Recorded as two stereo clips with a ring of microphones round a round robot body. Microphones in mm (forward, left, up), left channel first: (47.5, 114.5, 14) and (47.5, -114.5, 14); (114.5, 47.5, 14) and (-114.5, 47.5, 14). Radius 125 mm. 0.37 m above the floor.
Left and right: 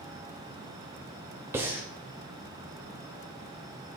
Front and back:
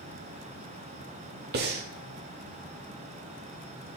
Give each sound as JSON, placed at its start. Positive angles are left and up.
{"t": 1.5, "sound": "breathing", "azimuth_deg": -165, "distance_m": 0.7}